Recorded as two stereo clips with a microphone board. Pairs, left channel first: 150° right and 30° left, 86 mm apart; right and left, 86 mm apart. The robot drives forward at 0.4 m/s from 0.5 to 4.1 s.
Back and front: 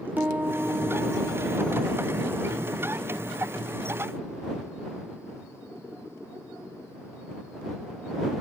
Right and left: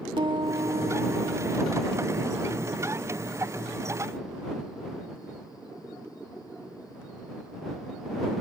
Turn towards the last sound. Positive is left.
turn(degrees=120)